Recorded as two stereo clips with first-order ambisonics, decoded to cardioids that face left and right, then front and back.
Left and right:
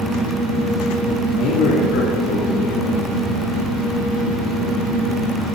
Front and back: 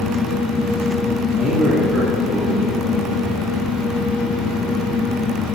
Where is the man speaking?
100° left, 4 m.